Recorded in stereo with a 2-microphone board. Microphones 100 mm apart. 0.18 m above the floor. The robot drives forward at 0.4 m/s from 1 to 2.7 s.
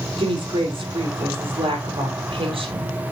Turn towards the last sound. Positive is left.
turn(degrees=-65)  # may be behind; listen again after turning